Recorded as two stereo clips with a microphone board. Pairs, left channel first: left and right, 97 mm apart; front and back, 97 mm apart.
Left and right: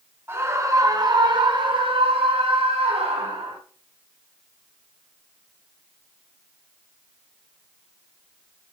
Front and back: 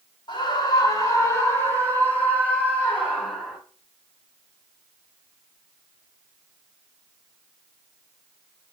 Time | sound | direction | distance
0.3 | a scream | 25° right | 1.9 m